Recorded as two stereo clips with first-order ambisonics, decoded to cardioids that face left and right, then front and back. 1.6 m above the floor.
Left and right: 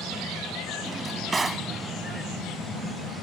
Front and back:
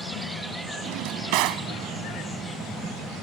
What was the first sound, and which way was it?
A drawer, 165° right.